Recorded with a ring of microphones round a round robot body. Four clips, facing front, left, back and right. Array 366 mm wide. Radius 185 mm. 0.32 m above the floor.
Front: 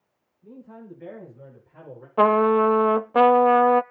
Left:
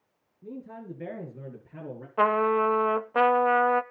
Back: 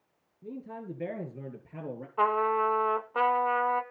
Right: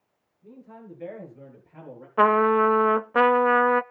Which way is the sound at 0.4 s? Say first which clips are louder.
Left 5 dB, back 3 dB; 135° left.